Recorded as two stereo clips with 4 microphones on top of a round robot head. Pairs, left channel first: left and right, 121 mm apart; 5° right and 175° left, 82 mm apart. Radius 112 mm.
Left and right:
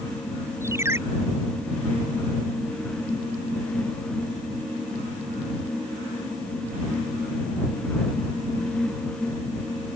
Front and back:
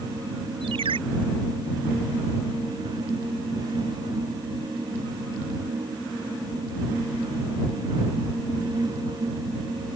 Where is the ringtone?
155° right.